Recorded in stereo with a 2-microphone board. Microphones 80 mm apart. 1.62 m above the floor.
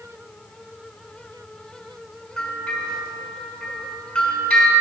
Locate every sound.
2.4 s a bell: 5° left (ahead or behind), 4.5 m